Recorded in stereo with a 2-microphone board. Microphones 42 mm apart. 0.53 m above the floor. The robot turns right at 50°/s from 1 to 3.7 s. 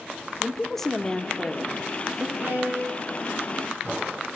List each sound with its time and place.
0.4 s a woman speaking: 160° left, 0.9 m; by 2.3 s 135° right, 0.9 m
2.4 s a violin: 60° right, 7.5 m; by 3.4 s 10° right, 7.5 m